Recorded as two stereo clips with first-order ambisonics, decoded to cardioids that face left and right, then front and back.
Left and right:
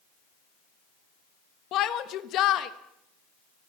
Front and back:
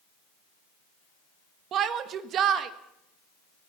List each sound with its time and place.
1.7 s a shout: 130° left, 1.5 m